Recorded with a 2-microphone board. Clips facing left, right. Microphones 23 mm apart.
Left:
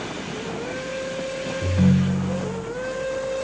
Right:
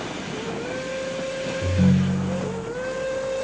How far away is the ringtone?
About 1.0 m.